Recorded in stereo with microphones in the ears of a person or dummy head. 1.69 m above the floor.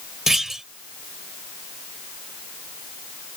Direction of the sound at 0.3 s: 5° right (ahead or behind).